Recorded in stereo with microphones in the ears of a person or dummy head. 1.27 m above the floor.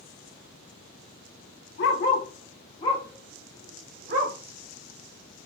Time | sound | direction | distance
1.8 | a dog barking | 55° left (ahead or behind) | 1.3 m